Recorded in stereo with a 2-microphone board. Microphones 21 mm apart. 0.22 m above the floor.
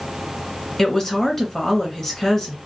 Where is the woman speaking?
15° left (ahead or behind), 2.0 m.